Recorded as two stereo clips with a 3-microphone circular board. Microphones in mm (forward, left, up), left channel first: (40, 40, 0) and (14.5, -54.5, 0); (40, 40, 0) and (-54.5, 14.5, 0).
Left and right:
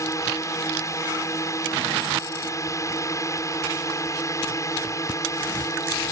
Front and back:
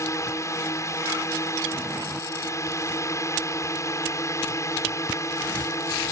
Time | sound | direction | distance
0.0 | a drone | 45° left | ?